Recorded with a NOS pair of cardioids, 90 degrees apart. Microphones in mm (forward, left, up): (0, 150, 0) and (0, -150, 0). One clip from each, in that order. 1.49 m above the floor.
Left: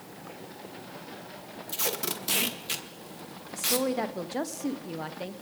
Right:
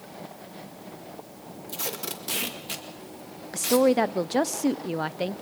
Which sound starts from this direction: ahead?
Tape being pulled, at 1.7 s.